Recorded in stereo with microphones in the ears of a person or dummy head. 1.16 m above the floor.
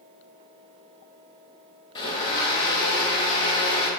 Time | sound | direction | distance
1.9 | a blender | 35° left (ahead or behind) | 1.4 m